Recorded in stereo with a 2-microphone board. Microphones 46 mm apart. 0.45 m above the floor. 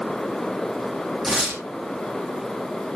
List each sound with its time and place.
1.2 s tearing paper: 5° right (ahead or behind), 3.5 m